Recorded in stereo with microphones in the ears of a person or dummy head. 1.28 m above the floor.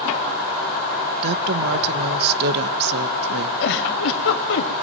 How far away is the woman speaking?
About 1.1 m.